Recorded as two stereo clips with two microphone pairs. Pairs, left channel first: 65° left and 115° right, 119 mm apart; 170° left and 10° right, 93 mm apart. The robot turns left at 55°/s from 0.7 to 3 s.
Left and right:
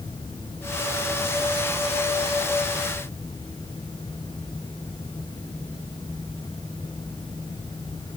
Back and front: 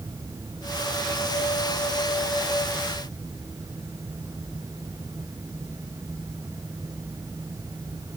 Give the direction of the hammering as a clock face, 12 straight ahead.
I don't hear hammering.